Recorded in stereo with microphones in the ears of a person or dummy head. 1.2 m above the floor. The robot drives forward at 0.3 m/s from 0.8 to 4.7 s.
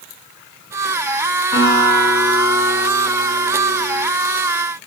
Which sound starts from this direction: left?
A guitar, at 1.5 s.